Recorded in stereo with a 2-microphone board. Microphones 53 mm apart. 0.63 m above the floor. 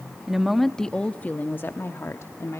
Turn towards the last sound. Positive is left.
turn(degrees=60)  # may be behind; listen again after turning